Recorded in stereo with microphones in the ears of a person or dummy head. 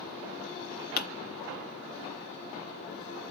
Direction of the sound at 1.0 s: 50° left (ahead or behind).